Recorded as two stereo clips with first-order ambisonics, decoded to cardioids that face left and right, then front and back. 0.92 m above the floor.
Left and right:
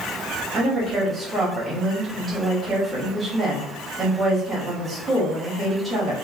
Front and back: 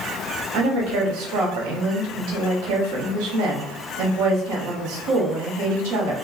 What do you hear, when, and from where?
0.5 s a woman speaking: 170° right, 1.1 m